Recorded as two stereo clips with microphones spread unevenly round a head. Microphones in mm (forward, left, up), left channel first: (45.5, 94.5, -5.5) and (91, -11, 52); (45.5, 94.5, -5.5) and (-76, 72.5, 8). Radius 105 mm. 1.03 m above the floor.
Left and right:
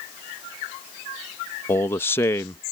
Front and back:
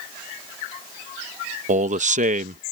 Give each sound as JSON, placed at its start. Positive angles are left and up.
{"t": 1.7, "sound": "a man speaking", "azimuth_deg": 175}